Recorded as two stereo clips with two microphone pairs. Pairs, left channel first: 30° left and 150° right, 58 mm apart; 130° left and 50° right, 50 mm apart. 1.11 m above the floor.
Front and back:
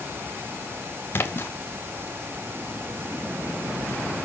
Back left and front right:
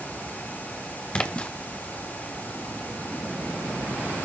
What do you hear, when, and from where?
1.1 s a splash: 70° left, 1.1 m